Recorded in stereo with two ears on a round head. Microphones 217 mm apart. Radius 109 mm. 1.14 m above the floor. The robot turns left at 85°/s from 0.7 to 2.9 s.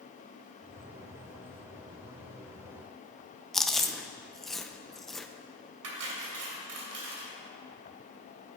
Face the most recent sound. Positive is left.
turn(degrees=-65)  # may be behind; listen again after turning